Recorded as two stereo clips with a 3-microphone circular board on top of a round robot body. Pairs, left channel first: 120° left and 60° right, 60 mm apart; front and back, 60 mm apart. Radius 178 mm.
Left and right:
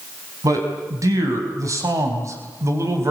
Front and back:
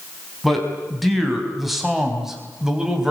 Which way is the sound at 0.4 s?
90° right.